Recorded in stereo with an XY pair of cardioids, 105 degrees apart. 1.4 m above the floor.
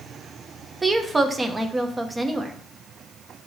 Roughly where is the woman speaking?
Ahead.